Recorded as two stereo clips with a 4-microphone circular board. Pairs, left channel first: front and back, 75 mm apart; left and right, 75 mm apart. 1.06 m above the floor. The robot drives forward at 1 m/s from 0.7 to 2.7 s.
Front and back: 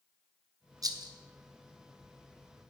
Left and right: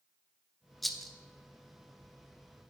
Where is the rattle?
Straight behind, 0.6 m.